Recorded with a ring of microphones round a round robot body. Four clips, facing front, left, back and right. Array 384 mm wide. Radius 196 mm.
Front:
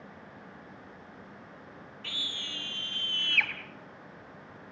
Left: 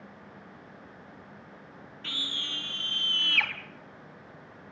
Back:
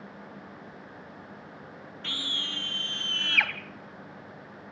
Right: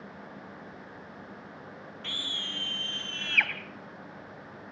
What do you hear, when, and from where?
2.0 s a scream: 160° right, 5.5 m